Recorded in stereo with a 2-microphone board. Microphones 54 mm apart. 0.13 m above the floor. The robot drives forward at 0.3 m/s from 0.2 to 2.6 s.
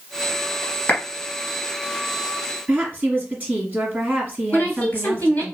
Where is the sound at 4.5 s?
25° left (ahead or behind), 1.6 m.